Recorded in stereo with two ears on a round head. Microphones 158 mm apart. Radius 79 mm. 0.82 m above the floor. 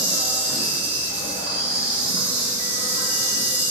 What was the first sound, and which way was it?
An insect, 10° right (ahead or behind).